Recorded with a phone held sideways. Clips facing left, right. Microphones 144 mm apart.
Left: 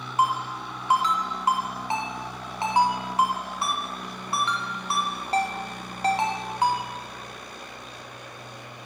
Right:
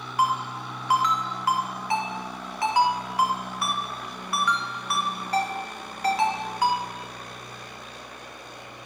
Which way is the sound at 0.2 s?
25° left (ahead or behind).